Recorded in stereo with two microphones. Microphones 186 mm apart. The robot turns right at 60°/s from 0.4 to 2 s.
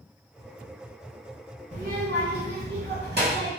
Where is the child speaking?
45° right (ahead or behind), 1.4 m; by 3.5 s 60° right (ahead or behind), 1.4 m.